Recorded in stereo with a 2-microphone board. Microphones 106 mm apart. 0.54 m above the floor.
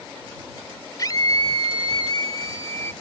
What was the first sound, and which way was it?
A scream, 35° left (ahead or behind).